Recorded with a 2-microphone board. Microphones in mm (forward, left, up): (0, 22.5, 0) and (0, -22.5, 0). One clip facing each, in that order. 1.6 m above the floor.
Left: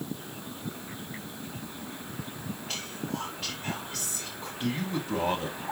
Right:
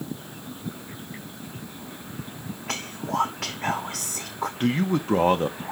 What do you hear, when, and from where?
2.7 s whispering: 90° right, 0.8 m
4.6 s a man speaking: 50° right (ahead or behind), 1.4 m